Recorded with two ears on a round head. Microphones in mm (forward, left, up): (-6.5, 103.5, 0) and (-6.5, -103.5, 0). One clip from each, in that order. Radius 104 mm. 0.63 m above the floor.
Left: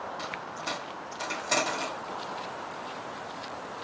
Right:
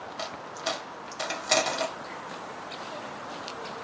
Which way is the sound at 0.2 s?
35° right (ahead or behind).